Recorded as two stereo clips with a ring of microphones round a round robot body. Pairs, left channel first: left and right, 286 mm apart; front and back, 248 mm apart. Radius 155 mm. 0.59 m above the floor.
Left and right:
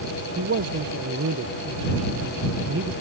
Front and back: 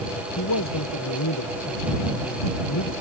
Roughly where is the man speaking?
Ahead right.